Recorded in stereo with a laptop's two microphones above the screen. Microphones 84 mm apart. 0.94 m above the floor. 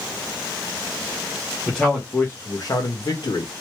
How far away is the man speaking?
About 1.1 m.